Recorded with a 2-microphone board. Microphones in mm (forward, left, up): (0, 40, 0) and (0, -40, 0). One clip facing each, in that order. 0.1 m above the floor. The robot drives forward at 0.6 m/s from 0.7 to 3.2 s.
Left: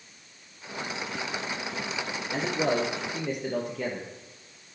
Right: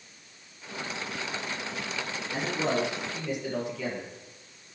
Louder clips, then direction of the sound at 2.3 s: Left 2 dB; 55° left (ahead or behind).